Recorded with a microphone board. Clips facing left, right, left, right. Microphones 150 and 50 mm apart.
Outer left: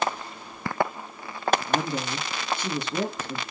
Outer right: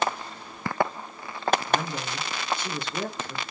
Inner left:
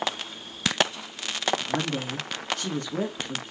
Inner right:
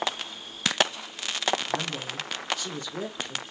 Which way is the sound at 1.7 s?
60° left (ahead or behind).